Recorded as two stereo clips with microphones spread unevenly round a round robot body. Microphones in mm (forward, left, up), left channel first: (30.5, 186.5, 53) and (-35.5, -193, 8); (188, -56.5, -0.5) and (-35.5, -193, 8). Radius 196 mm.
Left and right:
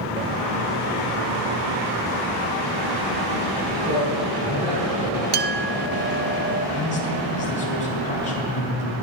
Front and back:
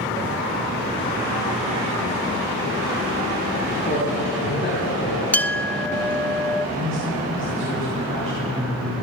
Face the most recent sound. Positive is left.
turn(degrees=155)